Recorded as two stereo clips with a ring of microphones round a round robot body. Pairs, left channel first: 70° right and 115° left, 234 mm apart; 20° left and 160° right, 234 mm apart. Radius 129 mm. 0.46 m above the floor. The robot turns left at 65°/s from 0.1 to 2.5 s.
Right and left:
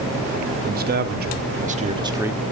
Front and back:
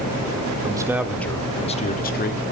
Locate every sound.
0.6 s a man speaking: 140° left, 1.4 m; by 2.4 s 25° left, 1.4 m